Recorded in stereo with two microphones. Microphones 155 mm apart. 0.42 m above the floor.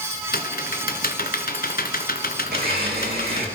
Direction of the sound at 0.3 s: 75° left (ahead or behind).